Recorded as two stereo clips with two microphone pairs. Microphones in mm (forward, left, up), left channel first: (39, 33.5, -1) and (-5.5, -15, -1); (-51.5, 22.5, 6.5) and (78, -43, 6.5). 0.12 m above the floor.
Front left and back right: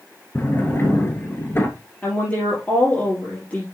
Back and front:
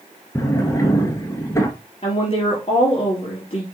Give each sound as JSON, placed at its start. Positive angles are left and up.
{"t": 0.3, "sound": "a drawer", "azimuth_deg": 90, "distance_m": 1.3}
{"t": 2.0, "sound": "a woman speaking", "azimuth_deg": 110, "distance_m": 3.0}